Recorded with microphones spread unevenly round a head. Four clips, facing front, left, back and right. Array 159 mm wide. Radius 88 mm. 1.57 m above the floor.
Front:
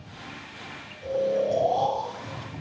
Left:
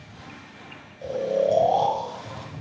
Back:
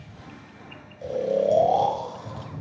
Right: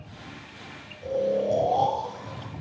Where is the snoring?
135° left, 1.6 m.